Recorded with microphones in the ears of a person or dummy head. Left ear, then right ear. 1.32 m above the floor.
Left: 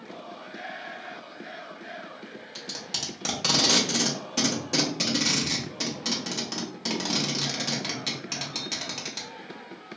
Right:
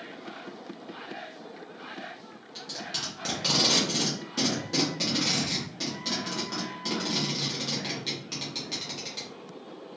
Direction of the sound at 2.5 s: 30° left (ahead or behind).